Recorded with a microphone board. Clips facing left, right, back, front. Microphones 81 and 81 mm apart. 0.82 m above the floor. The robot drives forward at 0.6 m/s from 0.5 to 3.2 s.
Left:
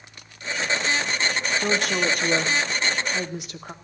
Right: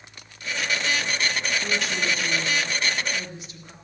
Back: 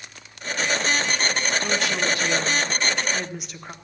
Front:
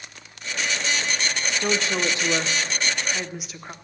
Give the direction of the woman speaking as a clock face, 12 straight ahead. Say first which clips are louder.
Left 4 dB, even; 10 o'clock.